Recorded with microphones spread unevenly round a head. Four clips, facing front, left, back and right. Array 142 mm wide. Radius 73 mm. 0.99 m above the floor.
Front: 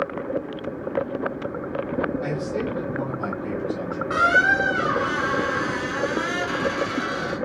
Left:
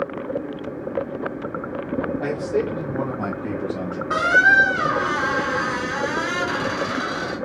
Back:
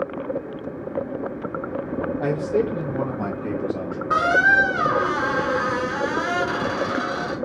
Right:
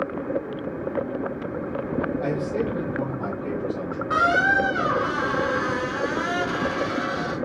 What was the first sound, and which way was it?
A man speaking, 160° left.